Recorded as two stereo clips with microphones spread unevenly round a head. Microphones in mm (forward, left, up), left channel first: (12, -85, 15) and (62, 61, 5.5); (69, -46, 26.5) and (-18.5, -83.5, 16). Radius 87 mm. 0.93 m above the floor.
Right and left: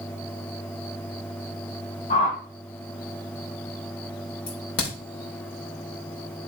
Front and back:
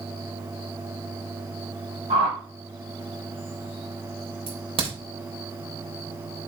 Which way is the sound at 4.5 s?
145° right.